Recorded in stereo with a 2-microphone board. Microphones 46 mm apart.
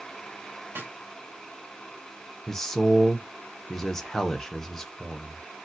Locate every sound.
0.8 s a snare drum: 55° right (ahead or behind), 1.6 m
2.5 s a man speaking: 5° left (ahead or behind), 0.6 m